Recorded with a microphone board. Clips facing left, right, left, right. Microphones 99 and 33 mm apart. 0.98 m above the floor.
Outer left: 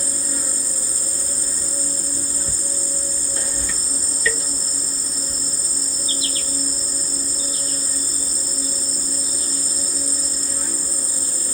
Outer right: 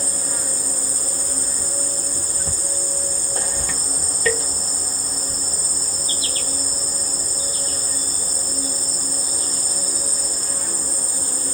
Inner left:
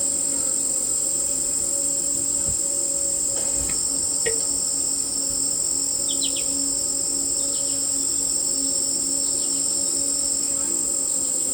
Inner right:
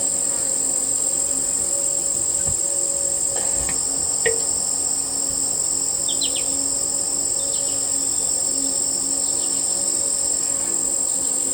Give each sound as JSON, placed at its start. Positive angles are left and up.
{"t": 0.0, "sound": "an insect", "side_deg": -50, "distance_m": 1.5}